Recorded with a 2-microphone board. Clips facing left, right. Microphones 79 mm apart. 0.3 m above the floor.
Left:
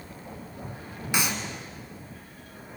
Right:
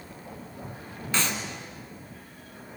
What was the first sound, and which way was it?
A clap, 10° left (ahead or behind).